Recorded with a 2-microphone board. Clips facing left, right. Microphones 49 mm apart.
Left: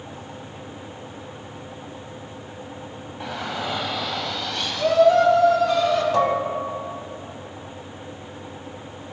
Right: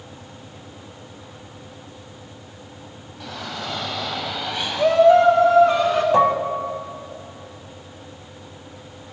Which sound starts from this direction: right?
Dishes clattering, at 6.1 s.